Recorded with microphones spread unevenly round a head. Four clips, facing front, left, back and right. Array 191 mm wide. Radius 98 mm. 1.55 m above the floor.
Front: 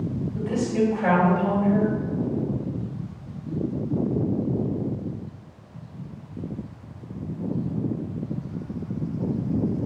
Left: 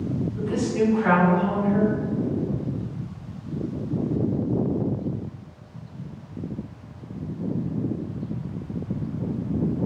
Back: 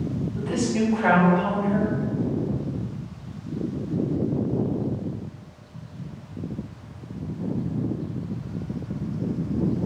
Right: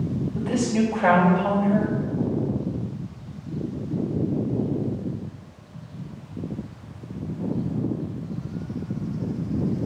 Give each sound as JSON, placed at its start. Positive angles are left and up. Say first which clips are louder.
{"t": 0.3, "sound": "a woman speaking", "louder": "right 1 dB, front 1 dB", "azimuth_deg": -85, "distance_m": 2.5}